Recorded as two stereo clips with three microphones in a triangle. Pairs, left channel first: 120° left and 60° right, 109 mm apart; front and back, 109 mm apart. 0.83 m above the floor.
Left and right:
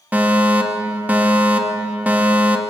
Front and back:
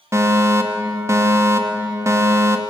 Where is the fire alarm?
130° right, 2.5 m.